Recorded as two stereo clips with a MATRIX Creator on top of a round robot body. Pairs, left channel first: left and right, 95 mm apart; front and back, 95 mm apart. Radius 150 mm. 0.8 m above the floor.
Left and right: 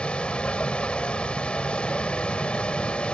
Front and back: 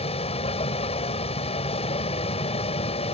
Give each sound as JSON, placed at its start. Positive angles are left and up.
{"t": 0.0, "sound": "a vehicle", "azimuth_deg": 10}